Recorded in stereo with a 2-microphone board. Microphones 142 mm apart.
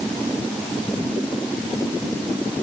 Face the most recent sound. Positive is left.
No sound to turn to.